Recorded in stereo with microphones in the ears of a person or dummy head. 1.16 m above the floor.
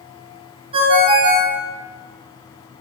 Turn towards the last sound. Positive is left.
turn(degrees=-30)  # may be behind; listen again after turning